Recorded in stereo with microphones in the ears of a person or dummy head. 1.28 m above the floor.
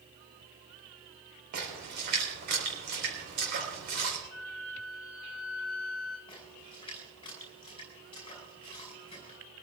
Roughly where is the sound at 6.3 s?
Left.